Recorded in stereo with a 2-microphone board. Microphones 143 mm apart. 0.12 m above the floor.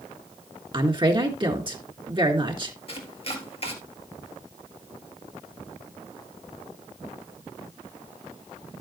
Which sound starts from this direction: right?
A woman speaking, at 0.7 s.